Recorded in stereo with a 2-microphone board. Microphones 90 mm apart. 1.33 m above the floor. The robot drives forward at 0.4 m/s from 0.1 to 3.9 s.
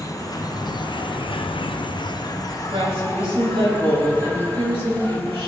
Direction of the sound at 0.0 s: 40° left (ahead or behind).